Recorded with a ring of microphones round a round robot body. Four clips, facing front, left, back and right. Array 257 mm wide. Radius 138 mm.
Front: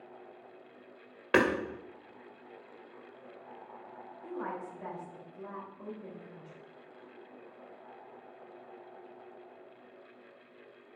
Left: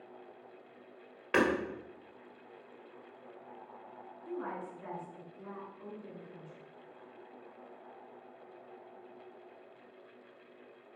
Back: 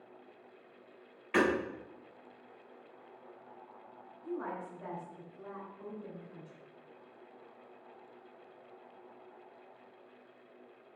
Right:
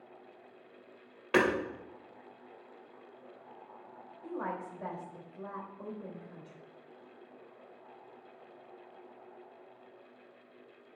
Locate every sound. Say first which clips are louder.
1.3 s hammering: right 1 dB, front 3 dB; 10° right, 2 m
4.2 s a woman speaking: right 2 dB, even; 70° right, 3.5 m